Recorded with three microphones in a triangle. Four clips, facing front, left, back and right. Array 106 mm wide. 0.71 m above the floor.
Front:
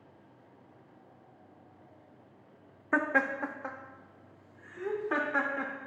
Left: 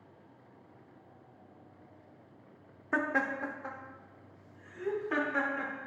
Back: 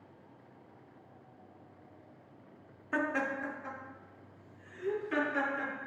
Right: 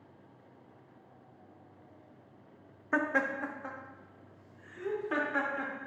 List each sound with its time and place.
2.9 s laughter: 10° right, 0.6 m; by 5.7 s 5° right, 1.8 m